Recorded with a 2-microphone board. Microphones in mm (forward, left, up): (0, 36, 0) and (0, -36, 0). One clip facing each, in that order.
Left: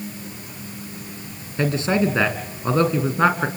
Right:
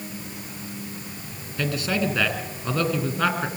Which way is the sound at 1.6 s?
30° left (ahead or behind).